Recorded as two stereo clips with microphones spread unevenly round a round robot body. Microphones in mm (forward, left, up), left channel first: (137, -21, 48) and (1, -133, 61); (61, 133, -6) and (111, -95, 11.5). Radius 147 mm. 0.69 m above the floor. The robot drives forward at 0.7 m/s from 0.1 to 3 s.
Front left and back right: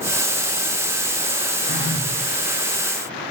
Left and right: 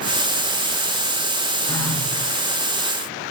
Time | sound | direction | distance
1.7 | a phone buzzing | 20° left | 6 m